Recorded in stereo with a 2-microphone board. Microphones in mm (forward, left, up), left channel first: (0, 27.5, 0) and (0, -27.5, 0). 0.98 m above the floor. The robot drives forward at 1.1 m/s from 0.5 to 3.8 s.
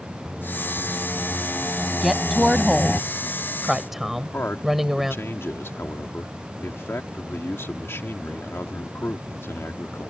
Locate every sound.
0.2 s singing: 5° left (ahead or behind); by 3.0 s 10° left (ahead or behind)
2.0 s a woman speaking: 5° right (ahead or behind)
4.2 s a man speaking: 50° left (ahead or behind)